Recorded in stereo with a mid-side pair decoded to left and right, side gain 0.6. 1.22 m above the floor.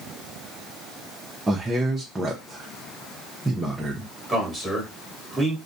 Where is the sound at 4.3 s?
5° left, 1.3 m.